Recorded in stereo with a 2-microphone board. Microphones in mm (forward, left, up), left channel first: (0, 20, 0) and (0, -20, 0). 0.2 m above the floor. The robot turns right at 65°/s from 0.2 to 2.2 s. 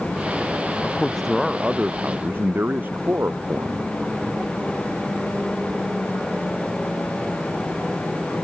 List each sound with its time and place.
0.8 s a man speaking: 145° left; by 3.9 s 125° right